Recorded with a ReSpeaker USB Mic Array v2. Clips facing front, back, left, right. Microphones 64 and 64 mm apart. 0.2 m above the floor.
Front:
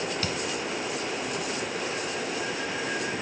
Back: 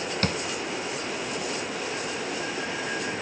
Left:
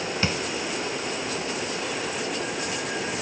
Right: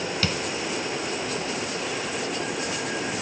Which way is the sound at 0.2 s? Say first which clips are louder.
Back 3 dB, left 2 dB; 150° left.